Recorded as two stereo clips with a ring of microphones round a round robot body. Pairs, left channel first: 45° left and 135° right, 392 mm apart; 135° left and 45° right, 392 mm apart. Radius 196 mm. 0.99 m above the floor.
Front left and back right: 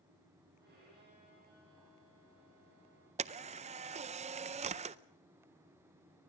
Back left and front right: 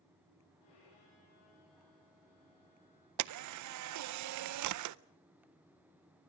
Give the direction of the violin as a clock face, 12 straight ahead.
7 o'clock.